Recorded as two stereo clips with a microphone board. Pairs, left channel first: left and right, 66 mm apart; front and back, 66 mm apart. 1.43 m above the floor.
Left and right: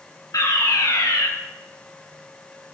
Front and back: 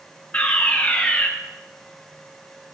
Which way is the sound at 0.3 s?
70° left.